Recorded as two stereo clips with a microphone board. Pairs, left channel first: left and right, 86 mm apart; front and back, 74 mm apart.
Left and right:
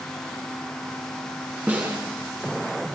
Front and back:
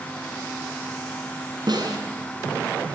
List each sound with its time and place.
1.7 s a snare drum: 160° right, 7.5 m